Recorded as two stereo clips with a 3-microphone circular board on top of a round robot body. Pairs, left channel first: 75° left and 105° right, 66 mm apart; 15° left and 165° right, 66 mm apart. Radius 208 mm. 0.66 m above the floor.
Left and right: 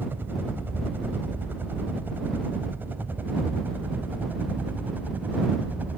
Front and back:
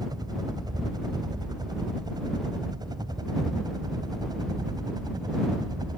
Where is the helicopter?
165° right; by 6.0 s 170° right.